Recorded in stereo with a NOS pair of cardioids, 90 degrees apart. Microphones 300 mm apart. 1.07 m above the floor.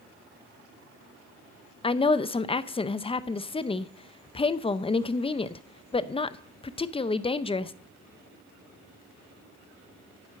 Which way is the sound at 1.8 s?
20° left.